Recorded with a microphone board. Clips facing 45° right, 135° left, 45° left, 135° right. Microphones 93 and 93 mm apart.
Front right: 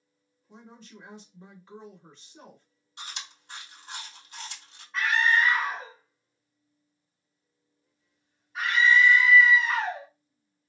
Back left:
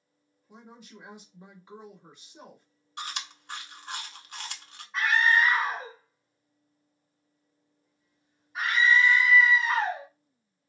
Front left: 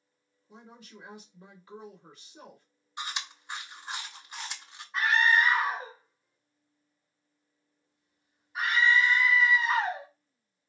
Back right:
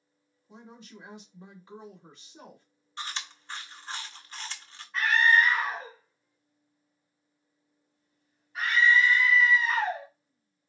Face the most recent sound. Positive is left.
turn(degrees=85)